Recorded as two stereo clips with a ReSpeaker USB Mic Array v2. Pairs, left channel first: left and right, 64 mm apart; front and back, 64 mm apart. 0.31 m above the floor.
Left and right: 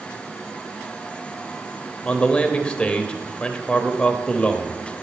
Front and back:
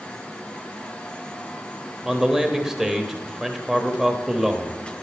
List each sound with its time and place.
2.0 s a man speaking: 115° left, 0.8 m